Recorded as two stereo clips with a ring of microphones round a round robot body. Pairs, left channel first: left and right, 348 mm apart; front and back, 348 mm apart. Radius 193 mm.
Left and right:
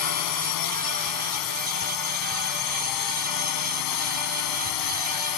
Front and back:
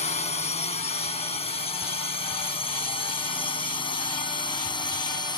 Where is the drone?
70° left; by 5.4 s 75° left.